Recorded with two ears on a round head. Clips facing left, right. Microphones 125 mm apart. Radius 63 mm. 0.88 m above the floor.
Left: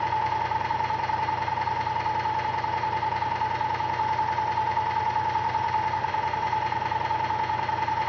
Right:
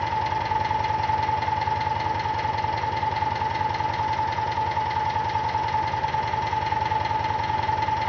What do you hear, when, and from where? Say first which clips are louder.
0.0 s an engine running: even; 35° right (ahead or behind), 0.7 m